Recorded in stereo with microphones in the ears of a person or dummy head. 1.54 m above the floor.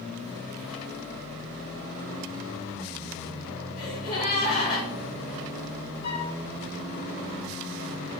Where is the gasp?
50° left (ahead or behind), 3.5 m.